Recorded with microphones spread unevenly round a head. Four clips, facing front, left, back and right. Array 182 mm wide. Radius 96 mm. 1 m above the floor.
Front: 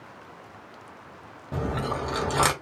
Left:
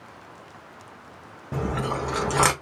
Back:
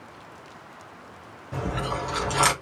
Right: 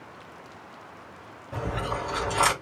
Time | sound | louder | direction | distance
1.5 | chewing | left 3 dB, even | 65° left | 0.9 m